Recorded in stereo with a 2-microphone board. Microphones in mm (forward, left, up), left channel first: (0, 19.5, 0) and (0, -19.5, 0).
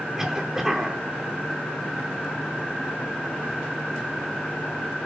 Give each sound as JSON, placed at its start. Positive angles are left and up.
{"t": 0.2, "sound": "a cough", "side_deg": -10, "distance_m": 3.5}